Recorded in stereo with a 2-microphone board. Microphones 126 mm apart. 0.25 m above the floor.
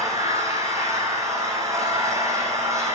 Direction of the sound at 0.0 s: 25° right (ahead or behind).